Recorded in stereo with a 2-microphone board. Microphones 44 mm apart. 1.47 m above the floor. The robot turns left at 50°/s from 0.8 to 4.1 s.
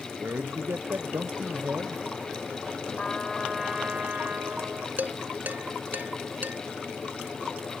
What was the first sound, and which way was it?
A man speaking, 85° right.